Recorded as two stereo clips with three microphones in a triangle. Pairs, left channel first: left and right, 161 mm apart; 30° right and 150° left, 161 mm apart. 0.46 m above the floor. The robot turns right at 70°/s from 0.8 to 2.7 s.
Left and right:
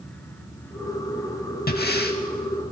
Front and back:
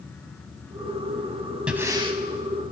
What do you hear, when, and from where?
1.7 s breathing: 65° left, 0.6 m; by 2.2 s 105° left, 0.6 m